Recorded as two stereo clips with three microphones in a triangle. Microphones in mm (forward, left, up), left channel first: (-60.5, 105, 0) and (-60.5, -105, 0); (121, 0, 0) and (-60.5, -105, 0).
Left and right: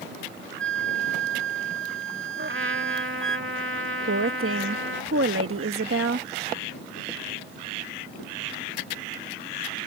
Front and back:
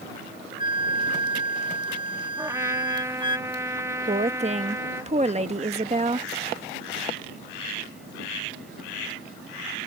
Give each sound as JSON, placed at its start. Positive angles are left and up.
{"t": 0.6, "sound": "a flute", "azimuth_deg": -85}
{"t": 2.4, "sound": "a trumpet", "azimuth_deg": -75}
{"t": 4.1, "sound": "a woman speaking", "azimuth_deg": -90}